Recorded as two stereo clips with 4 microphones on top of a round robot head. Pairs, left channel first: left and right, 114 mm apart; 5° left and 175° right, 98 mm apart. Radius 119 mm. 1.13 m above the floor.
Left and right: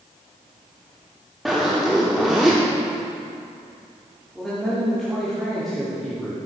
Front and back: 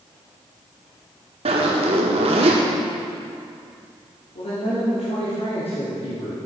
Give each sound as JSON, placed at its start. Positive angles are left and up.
{"t": 1.4, "sound": "a zipper", "azimuth_deg": 180, "distance_m": 0.9}
{"t": 4.3, "sound": "a man speaking", "azimuth_deg": 0, "distance_m": 3.0}